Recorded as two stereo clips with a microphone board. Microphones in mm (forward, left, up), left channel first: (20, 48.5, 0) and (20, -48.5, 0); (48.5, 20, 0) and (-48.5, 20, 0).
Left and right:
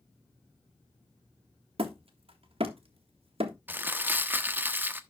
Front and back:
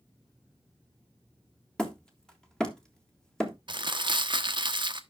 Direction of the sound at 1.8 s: 80° right.